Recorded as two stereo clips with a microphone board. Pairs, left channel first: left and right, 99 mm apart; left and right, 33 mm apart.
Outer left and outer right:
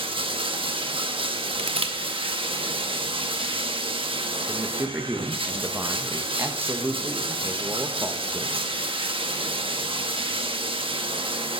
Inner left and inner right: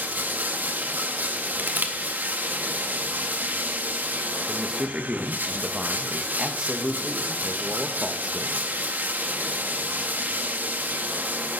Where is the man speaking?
20° right (ahead or behind), 0.9 m.